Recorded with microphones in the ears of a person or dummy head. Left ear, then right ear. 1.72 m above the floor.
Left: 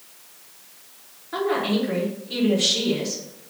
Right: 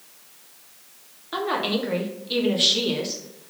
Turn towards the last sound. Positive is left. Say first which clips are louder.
# left 1 dB
turn(degrees=-35)  # may be behind; listen again after turning